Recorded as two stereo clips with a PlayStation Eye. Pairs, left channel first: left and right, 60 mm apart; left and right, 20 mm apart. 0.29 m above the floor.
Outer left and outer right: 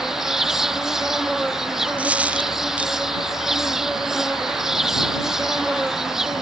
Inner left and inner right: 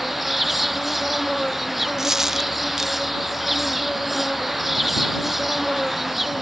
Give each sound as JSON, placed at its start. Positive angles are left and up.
{"t": 0.0, "sound": "an insect", "side_deg": -10}
{"t": 2.0, "sound": "a dropped coin", "side_deg": -20}